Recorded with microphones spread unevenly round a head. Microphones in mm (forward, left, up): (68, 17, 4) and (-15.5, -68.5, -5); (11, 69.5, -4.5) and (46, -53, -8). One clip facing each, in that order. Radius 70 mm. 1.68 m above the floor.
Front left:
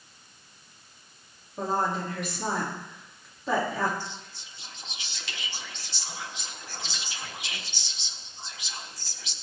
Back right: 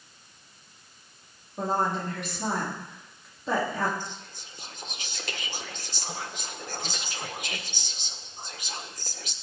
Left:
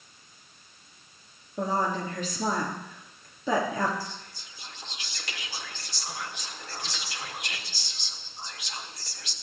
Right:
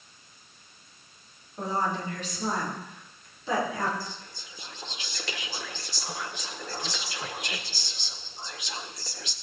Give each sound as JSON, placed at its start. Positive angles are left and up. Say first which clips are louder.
{"t": 1.6, "sound": "a woman speaking", "louder": "back right 1 dB, left 2 dB", "azimuth_deg": 135, "distance_m": 4.0}
{"t": 4.0, "sound": "whispering", "louder": "even, even", "azimuth_deg": -90, "distance_m": 1.6}